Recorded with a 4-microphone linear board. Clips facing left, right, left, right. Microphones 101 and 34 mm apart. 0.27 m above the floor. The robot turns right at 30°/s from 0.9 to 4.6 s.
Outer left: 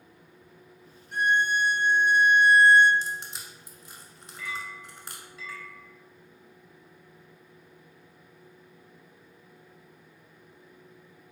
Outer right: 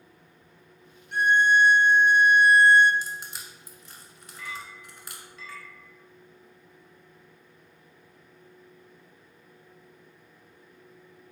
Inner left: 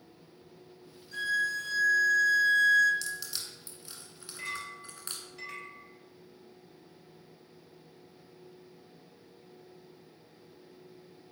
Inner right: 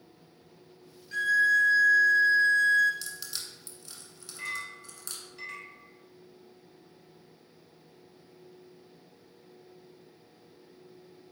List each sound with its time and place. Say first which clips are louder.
1.1 s a violin: outer right 4 dB, inner right 7 dB; 75° right, 0.9 m; by 2.9 s 20° right, 0.9 m
3.0 s crushing: outer left 2 dB, inner left 2 dB; 10° right (ahead or behind), 0.9 m; by 5.2 s 35° left (ahead or behind), 0.9 m
4.4 s a clink: outer left 2 dB, inner right 2 dB; 15° left (ahead or behind), 1.9 m; by 5.8 s 5° left (ahead or behind), 1.9 m